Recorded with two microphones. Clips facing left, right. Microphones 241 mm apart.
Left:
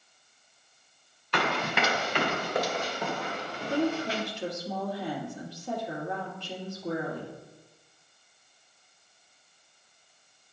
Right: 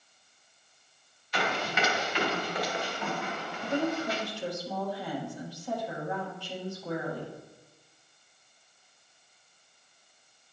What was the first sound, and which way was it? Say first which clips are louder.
Running footsteps: left 2 dB; 65° left (ahead or behind).